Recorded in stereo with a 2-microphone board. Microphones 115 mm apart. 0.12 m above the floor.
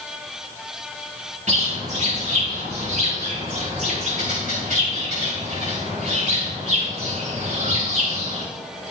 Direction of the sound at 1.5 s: 85° right.